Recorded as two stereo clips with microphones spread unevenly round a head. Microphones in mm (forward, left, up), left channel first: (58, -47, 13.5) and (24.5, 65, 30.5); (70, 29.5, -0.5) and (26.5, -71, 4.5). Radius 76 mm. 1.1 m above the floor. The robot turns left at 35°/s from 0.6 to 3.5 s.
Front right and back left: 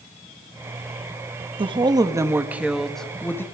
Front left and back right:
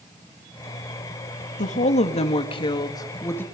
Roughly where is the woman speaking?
Ahead left.